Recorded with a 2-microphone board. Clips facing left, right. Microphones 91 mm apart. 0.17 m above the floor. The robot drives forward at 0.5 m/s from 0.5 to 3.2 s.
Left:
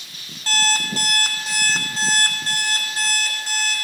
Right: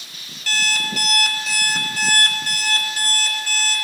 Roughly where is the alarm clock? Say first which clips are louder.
Left 2 dB; left.